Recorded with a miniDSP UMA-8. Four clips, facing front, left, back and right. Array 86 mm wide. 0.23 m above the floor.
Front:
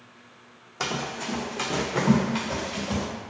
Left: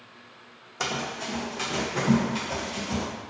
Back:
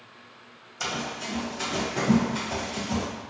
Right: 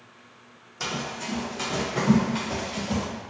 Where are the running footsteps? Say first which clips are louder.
Left 1 dB, front 2 dB; 40° left, 0.7 m; by 3.1 s 20° right, 1.8 m.